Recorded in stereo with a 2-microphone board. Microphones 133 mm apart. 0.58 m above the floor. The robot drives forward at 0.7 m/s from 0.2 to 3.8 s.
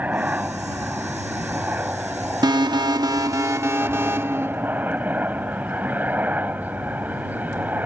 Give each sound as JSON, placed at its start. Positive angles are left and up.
{"t": 0.0, "sound": "a helicopter", "side_deg": -10}
{"t": 2.4, "sound": "an alarm", "side_deg": -30}